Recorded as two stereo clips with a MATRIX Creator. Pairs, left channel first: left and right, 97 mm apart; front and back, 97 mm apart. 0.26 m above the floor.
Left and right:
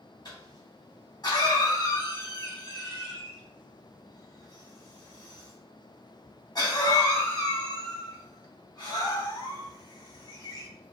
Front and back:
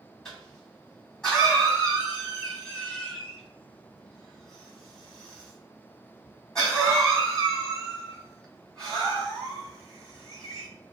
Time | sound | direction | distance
0.2 | a cough | 85° left | 2 m